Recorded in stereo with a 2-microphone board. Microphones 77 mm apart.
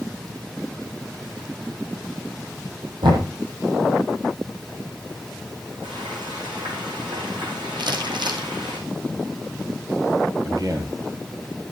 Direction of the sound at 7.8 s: 80° right.